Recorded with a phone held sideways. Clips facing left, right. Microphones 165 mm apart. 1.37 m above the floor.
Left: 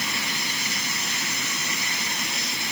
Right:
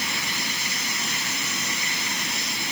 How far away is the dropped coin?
No dropped coin in this recording.